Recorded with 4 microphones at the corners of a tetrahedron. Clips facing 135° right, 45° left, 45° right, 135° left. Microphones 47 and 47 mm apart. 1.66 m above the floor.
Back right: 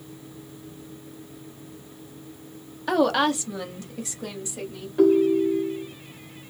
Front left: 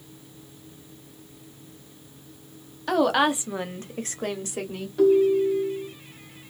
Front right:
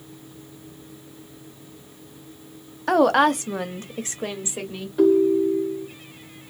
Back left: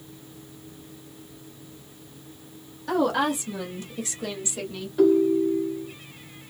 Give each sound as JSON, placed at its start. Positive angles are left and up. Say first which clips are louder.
{"t": 2.9, "sound": "a woman speaking", "louder": "even, front right 6 dB", "azimuth_deg": -50, "distance_m": 0.6}
{"t": 5.0, "sound": "a ringtone", "louder": "even, front right 2 dB", "azimuth_deg": -115, "distance_m": 0.9}